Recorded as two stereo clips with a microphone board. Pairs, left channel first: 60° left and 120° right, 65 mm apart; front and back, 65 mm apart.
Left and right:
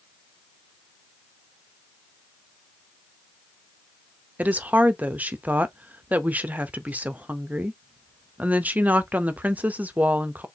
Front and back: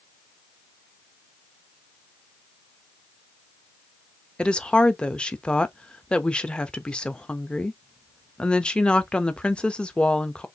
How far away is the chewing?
I don't hear chewing.